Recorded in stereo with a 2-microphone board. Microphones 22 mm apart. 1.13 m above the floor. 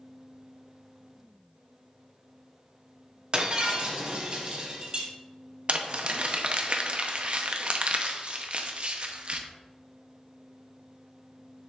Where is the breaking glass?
40° right (ahead or behind), 1.4 m.